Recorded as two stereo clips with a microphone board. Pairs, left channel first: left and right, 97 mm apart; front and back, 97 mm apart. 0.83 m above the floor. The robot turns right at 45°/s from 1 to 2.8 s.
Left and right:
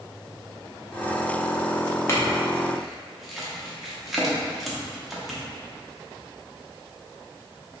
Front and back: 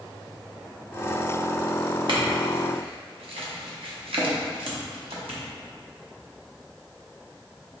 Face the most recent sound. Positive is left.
turn(degrees=180)